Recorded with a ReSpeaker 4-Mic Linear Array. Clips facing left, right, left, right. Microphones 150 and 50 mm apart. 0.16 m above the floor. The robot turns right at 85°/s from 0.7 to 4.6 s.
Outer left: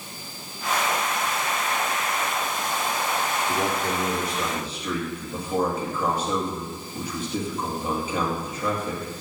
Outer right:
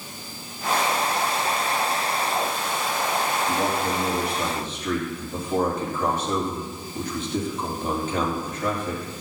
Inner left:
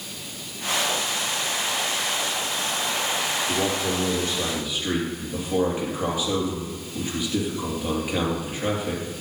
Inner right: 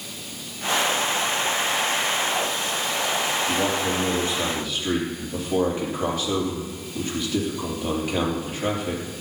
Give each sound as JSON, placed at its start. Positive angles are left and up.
{"t": 3.5, "sound": "a man speaking", "azimuth_deg": -85, "distance_m": 3.5}